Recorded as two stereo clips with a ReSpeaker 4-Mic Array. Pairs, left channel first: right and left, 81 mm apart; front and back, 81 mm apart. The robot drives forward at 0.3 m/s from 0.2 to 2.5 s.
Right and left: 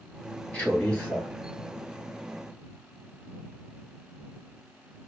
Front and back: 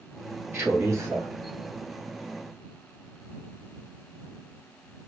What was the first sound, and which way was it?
A man speaking, 150° right.